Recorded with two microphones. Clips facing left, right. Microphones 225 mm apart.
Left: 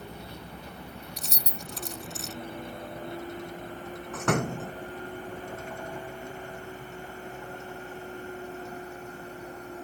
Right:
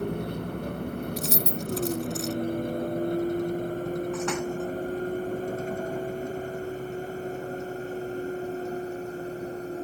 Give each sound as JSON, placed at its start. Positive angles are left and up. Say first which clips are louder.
{"t": 0.0, "sound": "a vehicle", "louder": "right 13 dB", "side_deg": -60}
{"t": 1.2, "sound": "keys jangling", "louder": "right 12 dB", "side_deg": 0}
{"t": 4.1, "sound": "a door slam", "louder": "right 1 dB", "side_deg": 65}